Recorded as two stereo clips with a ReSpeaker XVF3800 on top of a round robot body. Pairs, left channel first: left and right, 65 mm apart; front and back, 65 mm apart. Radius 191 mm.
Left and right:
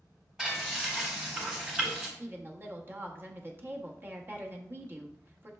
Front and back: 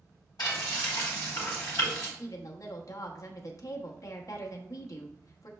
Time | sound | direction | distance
0.4 | frying | 10° right | 1.0 m
2.2 | a woman speaking | 35° right | 1.0 m